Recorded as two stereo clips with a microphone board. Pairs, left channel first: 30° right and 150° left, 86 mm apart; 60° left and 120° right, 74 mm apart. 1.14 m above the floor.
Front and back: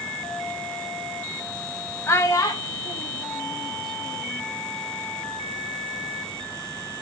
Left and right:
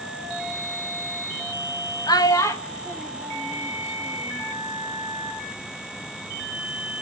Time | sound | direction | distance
2.1 | a child speaking | 30° left | 0.8 m